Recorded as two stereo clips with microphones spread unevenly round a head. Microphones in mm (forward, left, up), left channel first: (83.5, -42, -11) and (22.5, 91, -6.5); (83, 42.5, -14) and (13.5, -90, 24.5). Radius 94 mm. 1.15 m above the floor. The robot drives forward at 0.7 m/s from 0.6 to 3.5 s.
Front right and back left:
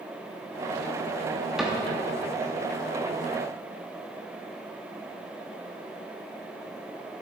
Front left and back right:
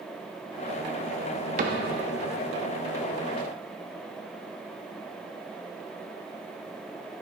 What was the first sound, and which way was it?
A cupboard door, 160° right.